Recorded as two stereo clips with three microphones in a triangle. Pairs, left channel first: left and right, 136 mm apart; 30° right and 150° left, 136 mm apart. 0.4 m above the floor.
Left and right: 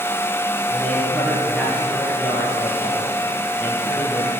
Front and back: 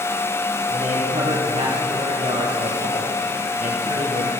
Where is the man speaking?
Straight behind, 6 m.